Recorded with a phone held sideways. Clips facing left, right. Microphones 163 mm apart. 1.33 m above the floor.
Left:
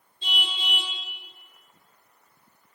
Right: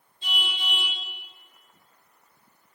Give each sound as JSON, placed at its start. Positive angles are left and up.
{"t": 0.2, "sound": "a car horn", "side_deg": 25, "distance_m": 8.5}